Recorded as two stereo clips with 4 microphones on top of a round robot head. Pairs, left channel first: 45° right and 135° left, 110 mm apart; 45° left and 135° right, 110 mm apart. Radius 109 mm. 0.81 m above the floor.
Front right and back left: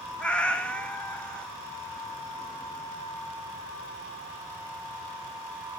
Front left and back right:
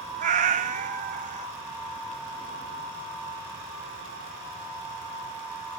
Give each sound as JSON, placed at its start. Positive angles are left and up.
{"t": 0.2, "sound": "a cat meowing", "azimuth_deg": -125, "distance_m": 0.6}